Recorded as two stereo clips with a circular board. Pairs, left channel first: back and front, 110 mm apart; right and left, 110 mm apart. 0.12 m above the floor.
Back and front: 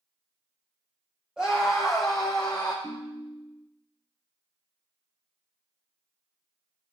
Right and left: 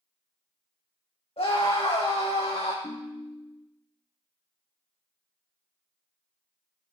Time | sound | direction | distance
1.4 | a scream | 90° right | 3 m
2.8 | a ringtone | 120° right | 1.5 m